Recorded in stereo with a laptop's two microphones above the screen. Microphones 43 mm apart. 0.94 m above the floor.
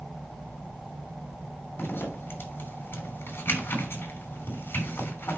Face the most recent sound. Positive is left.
turn(degrees=65)  # may be behind; listen again after turning